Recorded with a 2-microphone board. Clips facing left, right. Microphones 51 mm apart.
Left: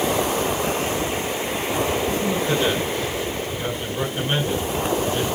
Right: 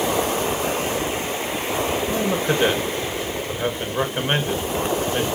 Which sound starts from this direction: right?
A man speaking, at 2.1 s.